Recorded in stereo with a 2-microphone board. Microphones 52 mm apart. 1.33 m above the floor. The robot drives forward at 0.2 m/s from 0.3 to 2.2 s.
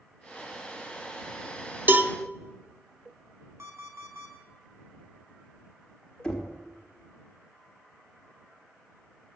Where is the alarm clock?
75° right (ahead or behind), 4 m.